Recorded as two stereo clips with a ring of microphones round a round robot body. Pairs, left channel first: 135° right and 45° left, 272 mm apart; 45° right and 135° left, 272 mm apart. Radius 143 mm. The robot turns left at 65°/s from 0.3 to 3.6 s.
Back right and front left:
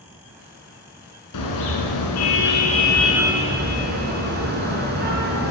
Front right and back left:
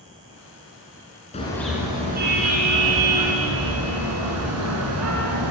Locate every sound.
1.3 s a car horn: 115° right, 2.5 m; by 5.5 s 100° left, 2.5 m